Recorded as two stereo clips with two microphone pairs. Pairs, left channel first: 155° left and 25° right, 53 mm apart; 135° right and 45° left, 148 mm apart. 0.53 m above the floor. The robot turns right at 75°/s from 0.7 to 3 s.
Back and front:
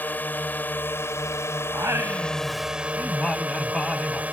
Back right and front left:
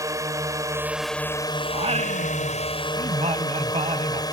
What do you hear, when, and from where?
0.0 s a drone: 110° left; by 4.3 s 80° right
1.7 s singing: 10° right; by 4.2 s 85° left